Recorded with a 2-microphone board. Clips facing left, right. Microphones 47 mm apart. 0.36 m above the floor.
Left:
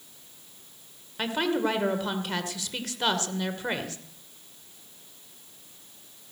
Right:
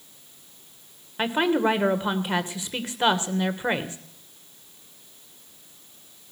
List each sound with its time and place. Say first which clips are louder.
1.2 s a woman speaking: right 4 dB; 20° right (ahead or behind), 1.3 m